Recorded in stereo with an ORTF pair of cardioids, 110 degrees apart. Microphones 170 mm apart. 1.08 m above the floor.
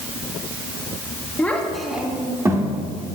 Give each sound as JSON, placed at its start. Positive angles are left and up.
{"t": 1.4, "sound": "a child speaking", "azimuth_deg": 10, "distance_m": 1.6}